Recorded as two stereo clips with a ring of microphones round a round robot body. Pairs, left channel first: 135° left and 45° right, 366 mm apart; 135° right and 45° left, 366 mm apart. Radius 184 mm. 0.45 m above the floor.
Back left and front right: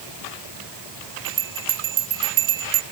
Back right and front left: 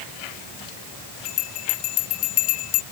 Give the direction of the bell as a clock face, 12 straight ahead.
4 o'clock.